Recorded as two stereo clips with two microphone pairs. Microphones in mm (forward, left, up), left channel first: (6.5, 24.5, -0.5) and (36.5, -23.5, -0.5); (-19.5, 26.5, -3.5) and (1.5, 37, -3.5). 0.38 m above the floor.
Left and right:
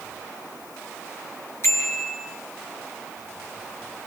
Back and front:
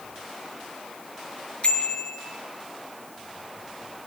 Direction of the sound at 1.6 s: 160° left.